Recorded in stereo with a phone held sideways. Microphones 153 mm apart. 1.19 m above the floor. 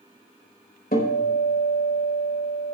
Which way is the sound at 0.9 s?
75° left (ahead or behind).